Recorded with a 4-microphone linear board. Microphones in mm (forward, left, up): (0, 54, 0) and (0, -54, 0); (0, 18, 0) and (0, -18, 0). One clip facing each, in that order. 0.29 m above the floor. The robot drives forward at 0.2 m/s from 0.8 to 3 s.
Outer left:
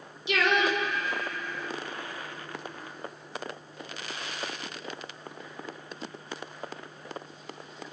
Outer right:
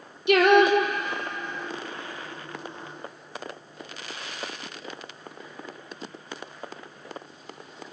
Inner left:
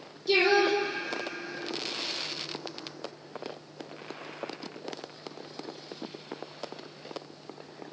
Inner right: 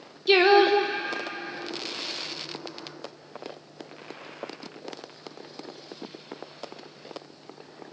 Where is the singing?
60° right (ahead or behind), 2.5 m; by 1.7 s 55° right (ahead or behind), 2.5 m.